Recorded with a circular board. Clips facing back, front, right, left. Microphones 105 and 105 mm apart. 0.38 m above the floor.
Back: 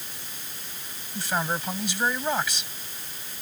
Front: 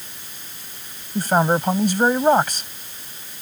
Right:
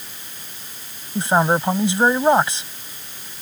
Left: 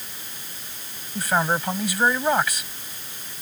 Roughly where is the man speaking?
Ahead right.